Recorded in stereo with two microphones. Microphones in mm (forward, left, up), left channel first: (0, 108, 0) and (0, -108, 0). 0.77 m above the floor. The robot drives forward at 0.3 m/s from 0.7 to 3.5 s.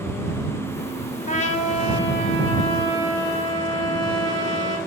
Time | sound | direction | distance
1.3 | a trumpet | 35° left (ahead or behind) | 0.8 m